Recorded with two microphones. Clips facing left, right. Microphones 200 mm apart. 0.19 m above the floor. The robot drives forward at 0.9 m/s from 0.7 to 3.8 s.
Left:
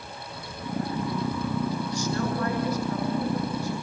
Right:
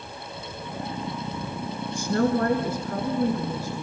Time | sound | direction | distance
1.9 | a woman speaking | 55° right (ahead or behind) | 3 m